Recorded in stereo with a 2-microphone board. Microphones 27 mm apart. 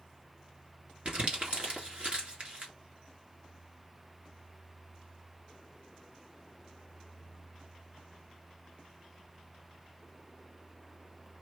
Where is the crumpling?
55° right (ahead or behind), 3 m.